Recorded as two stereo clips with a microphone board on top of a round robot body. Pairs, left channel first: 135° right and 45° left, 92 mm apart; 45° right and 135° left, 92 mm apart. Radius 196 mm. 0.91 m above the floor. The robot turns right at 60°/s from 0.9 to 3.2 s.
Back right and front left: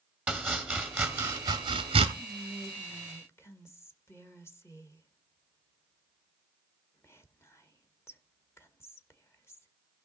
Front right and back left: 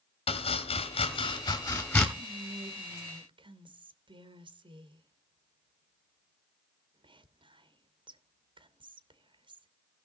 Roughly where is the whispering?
Left.